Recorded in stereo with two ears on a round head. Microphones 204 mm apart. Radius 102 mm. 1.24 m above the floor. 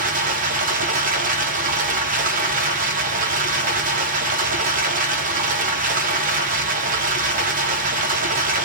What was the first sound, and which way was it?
Running water, 40° right (ahead or behind).